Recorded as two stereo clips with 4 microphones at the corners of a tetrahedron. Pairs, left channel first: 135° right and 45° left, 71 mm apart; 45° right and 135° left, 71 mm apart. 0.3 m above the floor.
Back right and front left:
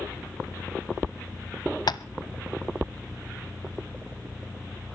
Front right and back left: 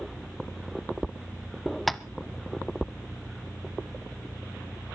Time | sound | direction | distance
1.9 | tapping | 135° right | 0.7 m